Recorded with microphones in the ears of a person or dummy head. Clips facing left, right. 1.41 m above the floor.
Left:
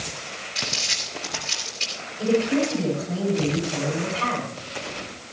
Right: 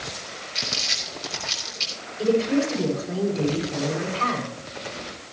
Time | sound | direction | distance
0.6 | crumpling | 30° right (ahead or behind) | 7 m
2.2 | a woman speaking | 75° right (ahead or behind) | 8.5 m